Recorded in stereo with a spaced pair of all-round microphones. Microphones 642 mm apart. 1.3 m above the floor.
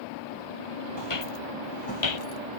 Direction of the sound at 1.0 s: 40° left (ahead or behind).